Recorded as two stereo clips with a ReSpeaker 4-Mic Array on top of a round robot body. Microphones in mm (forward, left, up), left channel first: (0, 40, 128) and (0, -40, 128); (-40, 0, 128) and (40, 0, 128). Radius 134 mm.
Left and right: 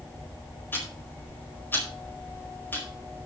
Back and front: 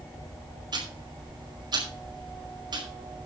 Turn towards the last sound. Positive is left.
turn(degrees=25)